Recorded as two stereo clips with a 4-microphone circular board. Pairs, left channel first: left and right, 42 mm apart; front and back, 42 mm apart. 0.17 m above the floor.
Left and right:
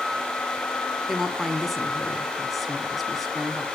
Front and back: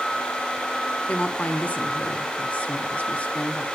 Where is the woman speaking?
Straight ahead, 1.7 m.